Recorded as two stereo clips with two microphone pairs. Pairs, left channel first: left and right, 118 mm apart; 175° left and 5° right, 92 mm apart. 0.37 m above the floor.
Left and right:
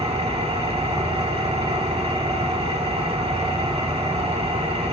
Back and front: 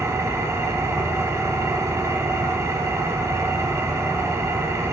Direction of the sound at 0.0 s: 60° right.